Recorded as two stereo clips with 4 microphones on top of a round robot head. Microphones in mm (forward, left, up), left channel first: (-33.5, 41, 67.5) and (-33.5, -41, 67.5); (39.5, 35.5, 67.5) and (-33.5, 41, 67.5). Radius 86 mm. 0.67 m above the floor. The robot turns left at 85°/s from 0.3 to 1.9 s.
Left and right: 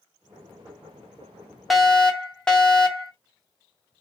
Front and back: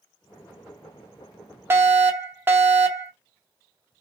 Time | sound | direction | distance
1.7 | a fire alarm | straight behind | 2 m